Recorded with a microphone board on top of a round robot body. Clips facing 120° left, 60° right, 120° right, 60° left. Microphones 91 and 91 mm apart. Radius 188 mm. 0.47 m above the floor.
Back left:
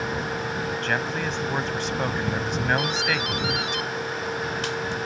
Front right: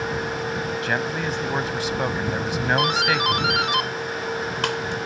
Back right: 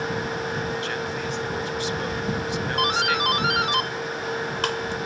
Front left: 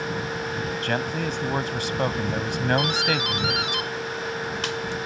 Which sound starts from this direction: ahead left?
A man speaking, at 0.8 s.